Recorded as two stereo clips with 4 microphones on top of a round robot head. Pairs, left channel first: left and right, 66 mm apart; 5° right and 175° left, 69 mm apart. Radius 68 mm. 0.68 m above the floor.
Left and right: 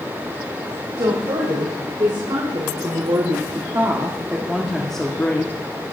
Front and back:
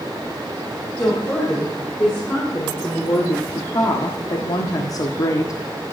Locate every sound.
1.0 s a woman speaking: 75° right, 4.5 m; by 5.9 s 40° left, 2 m